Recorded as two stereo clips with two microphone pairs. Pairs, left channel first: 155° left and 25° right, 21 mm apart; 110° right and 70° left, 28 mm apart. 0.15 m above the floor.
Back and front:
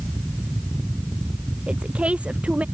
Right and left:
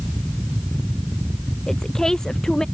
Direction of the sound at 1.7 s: 40° right.